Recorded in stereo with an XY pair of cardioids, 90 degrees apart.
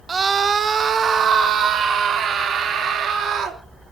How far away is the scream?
About 1.5 m.